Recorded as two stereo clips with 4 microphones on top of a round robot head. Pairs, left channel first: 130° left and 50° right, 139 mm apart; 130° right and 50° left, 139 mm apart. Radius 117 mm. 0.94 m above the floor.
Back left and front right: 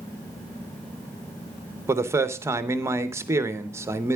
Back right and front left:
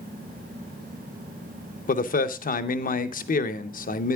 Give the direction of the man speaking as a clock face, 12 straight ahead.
4 o'clock.